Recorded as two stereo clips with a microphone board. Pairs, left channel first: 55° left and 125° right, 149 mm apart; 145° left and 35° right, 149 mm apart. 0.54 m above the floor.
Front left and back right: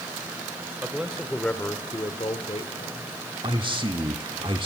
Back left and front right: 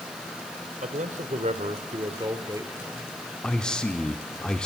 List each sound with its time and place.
0.8 s a man speaking: 45° right, 2 m; by 3.1 s 45° left, 2 m
3.4 s a man speaking: 135° right, 1.1 m